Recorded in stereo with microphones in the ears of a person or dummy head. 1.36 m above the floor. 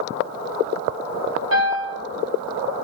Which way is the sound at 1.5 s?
75° right (ahead or behind).